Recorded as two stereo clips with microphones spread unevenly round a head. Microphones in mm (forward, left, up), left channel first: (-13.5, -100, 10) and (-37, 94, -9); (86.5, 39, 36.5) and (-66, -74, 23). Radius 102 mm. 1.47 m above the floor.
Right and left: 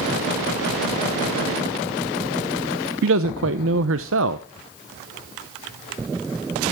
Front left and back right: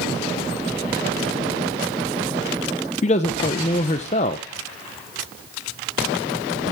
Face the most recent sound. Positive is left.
turn(degrees=90)